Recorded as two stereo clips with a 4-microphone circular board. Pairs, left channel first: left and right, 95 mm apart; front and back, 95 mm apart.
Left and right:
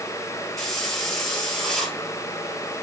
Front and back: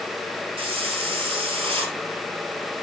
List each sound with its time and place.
0.6 s a hiss: 175° left, 2 m